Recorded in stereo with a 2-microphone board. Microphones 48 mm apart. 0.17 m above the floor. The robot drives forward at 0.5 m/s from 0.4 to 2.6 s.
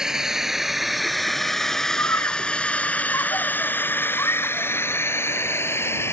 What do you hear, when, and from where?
0.0 s a drone: 15° right (ahead or behind); by 6.1 s 65° left (ahead or behind)
2.0 s a scream: 75° left (ahead or behind); by 4.7 s 80° left